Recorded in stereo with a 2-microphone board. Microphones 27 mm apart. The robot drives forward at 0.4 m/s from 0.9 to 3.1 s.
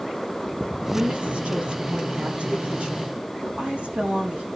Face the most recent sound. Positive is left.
turn(degrees=-50)  # may be behind; listen again after turning